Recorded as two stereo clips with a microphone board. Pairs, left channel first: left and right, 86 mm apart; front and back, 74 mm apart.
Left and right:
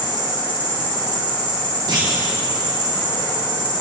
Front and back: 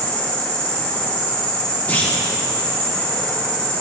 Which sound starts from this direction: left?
An insect, at 0.0 s.